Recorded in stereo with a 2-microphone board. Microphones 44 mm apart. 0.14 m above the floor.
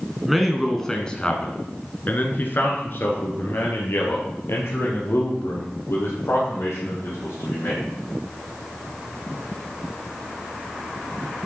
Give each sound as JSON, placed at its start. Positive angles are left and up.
{"t": 0.2, "sound": "a man speaking", "side_deg": -5, "distance_m": 1.2}